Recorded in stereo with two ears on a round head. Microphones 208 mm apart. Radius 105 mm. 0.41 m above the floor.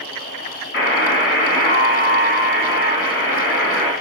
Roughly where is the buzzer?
Left.